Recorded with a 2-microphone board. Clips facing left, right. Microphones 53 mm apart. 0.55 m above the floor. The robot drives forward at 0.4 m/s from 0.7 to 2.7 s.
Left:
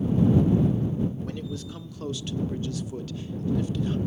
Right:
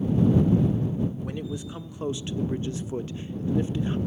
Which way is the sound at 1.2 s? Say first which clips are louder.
Right 1 dB; 15° right (ahead or behind).